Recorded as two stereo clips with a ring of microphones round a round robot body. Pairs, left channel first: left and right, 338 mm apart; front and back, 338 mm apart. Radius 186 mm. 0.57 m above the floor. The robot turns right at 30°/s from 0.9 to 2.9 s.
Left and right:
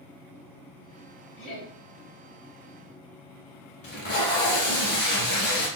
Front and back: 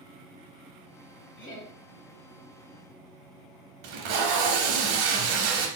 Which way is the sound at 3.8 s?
155° left.